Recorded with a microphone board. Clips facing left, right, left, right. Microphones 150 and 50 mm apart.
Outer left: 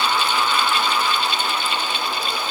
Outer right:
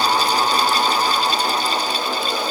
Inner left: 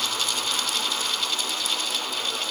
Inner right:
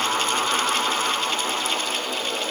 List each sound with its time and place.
Only background noise.